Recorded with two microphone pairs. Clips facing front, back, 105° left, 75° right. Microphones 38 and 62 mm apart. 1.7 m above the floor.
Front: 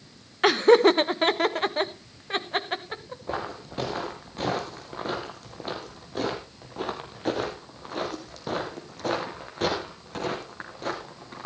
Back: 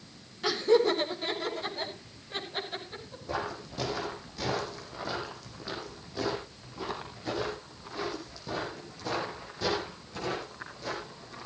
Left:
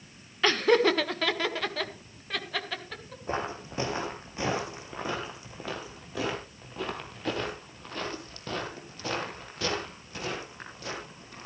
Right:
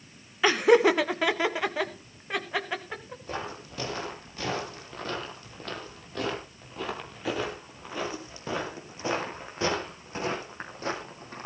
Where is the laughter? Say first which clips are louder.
Front 7 dB, right 3 dB; 5° left, 1.0 m; by 3.2 s 5° right, 2.5 m.